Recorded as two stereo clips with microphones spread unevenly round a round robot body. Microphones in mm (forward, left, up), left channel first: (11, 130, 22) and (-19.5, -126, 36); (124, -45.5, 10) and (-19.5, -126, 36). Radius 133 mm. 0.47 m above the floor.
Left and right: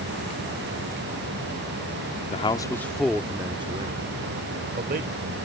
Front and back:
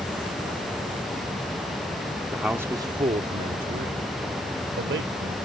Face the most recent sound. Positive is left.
turn(degrees=-150)